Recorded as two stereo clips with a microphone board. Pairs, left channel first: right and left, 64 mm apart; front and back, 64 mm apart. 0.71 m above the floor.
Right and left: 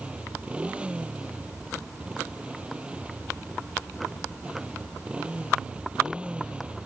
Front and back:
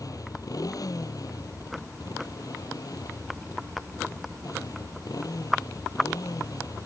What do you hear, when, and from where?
0.0 s a motorcycle: 20° left